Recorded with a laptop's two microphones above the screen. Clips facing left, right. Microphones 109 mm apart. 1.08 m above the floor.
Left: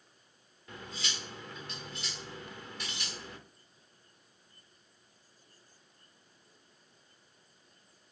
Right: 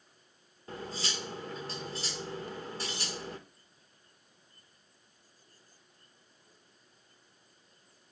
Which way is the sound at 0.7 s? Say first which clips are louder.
Right 4 dB; 35° right (ahead or behind).